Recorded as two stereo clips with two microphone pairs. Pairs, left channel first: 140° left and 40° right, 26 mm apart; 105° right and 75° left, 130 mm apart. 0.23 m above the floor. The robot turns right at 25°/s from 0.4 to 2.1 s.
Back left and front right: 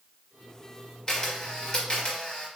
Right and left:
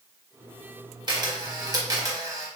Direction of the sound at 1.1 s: 95° left.